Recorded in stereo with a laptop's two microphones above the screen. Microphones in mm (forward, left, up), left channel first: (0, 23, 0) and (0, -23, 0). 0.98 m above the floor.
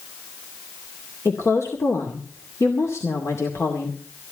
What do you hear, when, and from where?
1.2 s a woman speaking: 75° left (ahead or behind), 2 m